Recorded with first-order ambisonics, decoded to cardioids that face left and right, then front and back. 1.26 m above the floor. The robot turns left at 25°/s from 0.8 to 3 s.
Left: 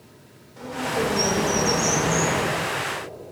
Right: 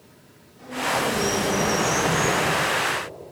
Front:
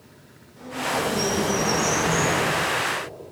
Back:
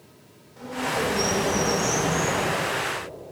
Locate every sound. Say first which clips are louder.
0.6 s a bird: right 1 dB, front 1 dB; 105° left, 2.5 m; by 2.4 s 65° left, 2.5 m